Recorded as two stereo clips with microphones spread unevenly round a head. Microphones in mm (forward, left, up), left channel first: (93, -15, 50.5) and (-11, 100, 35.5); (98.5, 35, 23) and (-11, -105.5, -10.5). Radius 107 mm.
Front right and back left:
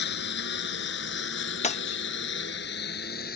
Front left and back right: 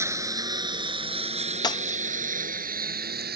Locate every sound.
0.0 s a lawn mower: 50° right; by 3.4 s 95° right
1.6 s breaking glass: 10° right